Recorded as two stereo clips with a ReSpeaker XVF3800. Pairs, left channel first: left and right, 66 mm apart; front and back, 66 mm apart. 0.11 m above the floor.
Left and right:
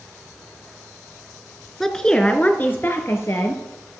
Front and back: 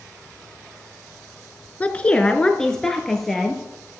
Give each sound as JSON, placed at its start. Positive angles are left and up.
{"t": 1.8, "sound": "a woman speaking", "azimuth_deg": 15, "distance_m": 1.1}